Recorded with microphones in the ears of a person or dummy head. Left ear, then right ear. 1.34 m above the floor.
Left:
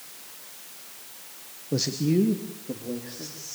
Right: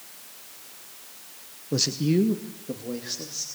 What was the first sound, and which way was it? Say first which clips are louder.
A man speaking: right 1 dB; 10° right (ahead or behind).